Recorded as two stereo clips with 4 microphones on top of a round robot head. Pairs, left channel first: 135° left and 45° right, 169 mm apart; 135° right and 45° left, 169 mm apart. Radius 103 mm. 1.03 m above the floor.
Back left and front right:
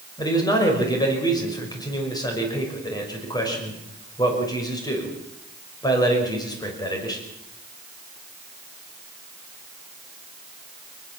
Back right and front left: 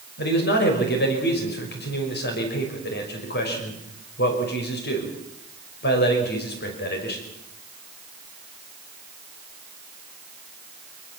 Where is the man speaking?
160° right, 5.5 m.